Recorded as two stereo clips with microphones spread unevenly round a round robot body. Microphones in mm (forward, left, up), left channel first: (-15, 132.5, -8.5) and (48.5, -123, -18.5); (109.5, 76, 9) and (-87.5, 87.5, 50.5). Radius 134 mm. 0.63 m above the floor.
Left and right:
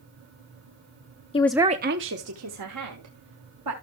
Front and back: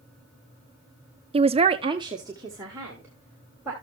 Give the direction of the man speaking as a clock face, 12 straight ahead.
8 o'clock.